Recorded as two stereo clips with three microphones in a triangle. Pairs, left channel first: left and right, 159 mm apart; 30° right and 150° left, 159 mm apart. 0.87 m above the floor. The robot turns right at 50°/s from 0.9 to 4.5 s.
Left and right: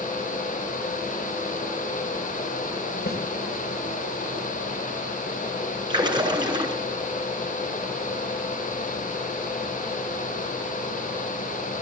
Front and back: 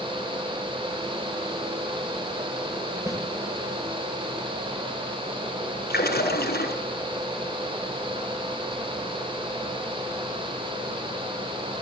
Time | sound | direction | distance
3.1 | a snare drum | 80° left | 4.5 m
5.9 | a splash | 25° right | 8 m